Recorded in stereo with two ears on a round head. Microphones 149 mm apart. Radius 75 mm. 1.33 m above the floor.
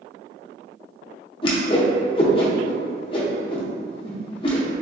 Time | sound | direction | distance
1.4 | a whoosh | 30° left (ahead or behind) | 0.5 m